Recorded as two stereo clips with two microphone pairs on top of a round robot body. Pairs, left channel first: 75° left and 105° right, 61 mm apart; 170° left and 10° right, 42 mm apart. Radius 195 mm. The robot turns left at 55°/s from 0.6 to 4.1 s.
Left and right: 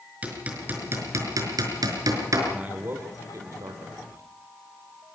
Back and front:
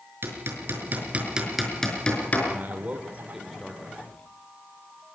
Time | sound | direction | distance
0.2 | hammering | 40° right | 5 m
2.5 | a man speaking | 35° right | 2.5 m